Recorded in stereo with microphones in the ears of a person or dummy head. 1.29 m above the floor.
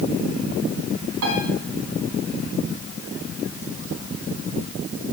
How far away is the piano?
About 3.5 m.